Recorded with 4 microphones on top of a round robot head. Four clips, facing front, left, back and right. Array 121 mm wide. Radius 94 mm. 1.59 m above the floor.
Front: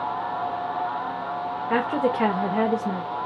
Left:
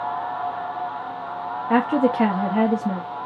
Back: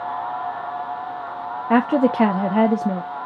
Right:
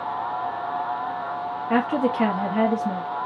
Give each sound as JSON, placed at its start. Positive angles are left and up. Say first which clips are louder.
{"t": 1.7, "sound": "a woman speaking", "louder": "left 3 dB, back 6 dB", "azimuth_deg": 170, "distance_m": 0.7}